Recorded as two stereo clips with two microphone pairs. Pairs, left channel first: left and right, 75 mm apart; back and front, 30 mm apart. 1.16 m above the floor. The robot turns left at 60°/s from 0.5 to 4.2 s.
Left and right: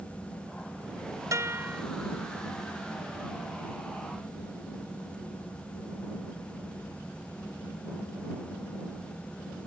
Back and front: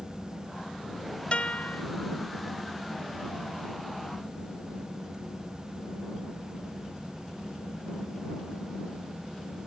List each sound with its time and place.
1.3 s a guitar: 130° right; by 1.8 s 160° right